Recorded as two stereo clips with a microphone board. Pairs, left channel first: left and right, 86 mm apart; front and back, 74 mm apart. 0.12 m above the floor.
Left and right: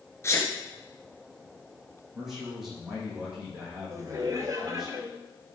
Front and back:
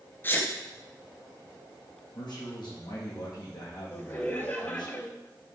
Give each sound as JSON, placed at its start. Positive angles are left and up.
{"t": 0.2, "sound": "a sneeze", "azimuth_deg": 50, "distance_m": 1.5}
{"t": 2.1, "sound": "a man speaking", "azimuth_deg": -5, "distance_m": 6.0}
{"t": 3.9, "sound": "laughter", "azimuth_deg": -50, "distance_m": 2.5}